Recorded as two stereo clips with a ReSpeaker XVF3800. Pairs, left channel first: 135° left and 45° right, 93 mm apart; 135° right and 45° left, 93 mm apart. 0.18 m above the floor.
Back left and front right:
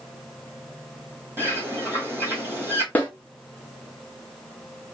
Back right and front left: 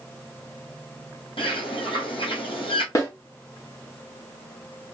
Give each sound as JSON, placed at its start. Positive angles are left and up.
{"t": 1.4, "sound": "a bird", "azimuth_deg": -110, "distance_m": 1.7}
{"t": 3.0, "sound": "a snare drum", "azimuth_deg": -165, "distance_m": 1.3}